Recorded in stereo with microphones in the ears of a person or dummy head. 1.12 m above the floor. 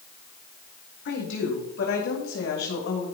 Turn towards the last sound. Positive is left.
turn(degrees=70)  # may be behind; listen again after turning